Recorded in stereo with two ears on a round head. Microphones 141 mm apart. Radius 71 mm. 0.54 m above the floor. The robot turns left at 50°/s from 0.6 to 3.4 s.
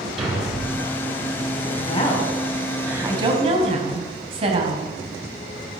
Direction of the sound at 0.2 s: Centre (ahead or behind).